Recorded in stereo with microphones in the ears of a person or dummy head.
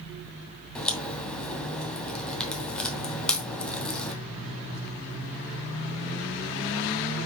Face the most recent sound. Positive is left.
turn(degrees=5)  # may be behind; listen again after turning